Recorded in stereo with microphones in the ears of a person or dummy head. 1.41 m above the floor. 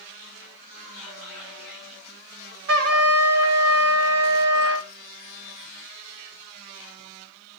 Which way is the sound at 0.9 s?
50° right (ahead or behind).